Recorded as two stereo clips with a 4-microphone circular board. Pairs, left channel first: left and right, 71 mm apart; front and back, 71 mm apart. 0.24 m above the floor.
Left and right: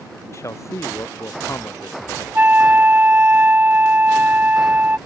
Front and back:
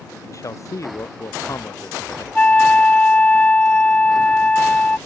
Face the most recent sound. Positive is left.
turn(degrees=-55)